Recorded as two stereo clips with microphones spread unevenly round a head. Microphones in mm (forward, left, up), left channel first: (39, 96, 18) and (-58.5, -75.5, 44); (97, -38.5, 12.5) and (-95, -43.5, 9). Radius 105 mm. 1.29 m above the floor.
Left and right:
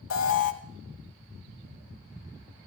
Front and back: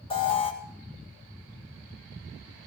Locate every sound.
0.1 s an alarm: 70° left, 1.6 m